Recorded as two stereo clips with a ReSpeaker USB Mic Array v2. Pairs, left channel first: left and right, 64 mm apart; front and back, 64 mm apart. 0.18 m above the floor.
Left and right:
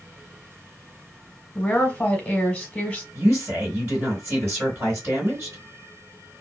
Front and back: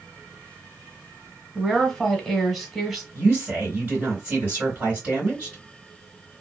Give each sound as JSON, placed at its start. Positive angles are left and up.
{"t": 1.6, "sound": "a woman speaking", "azimuth_deg": 100, "distance_m": 1.2}
{"t": 3.1, "sound": "a woman speaking", "azimuth_deg": -120, "distance_m": 2.5}